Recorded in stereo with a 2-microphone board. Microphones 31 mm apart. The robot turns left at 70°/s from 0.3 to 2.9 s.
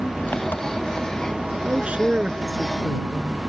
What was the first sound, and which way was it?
An engine running, 105° left.